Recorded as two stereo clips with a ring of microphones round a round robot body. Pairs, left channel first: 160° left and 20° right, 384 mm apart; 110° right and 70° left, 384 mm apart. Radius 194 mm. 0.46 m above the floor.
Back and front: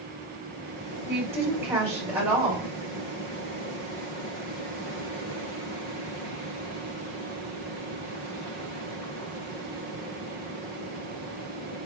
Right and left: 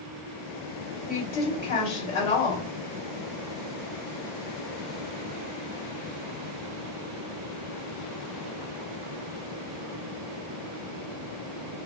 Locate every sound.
1.1 s a woman speaking: 105° right, 2.5 m